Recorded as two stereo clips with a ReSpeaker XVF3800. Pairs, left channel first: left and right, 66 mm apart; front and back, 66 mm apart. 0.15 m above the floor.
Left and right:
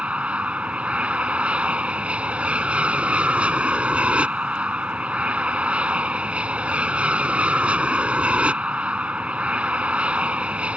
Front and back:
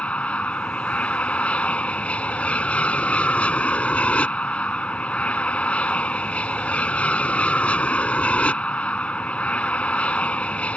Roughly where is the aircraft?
Ahead right.